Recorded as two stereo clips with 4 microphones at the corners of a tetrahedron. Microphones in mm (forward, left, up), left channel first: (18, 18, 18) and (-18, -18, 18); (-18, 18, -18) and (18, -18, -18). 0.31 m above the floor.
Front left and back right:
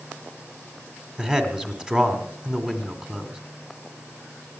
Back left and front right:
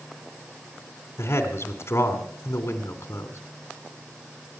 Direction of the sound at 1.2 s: 150° left.